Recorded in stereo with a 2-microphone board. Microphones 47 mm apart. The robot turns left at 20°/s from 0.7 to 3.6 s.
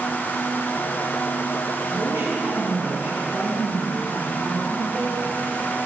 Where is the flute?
No flute in this recording.